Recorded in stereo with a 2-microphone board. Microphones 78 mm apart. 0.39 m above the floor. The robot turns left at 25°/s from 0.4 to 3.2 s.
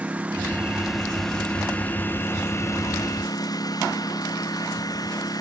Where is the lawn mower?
165° right; by 5.4 s 125° left.